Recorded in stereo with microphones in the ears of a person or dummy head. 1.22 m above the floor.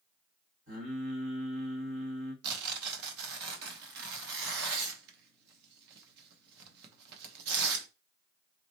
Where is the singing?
70° right (ahead or behind), 2.5 m.